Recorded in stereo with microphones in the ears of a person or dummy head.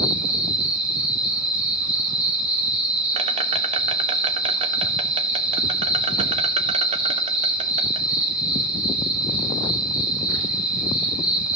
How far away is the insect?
About 1.4 m.